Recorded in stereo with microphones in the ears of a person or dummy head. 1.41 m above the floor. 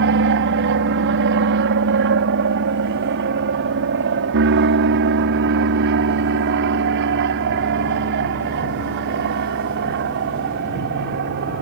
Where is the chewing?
I don't hear chewing.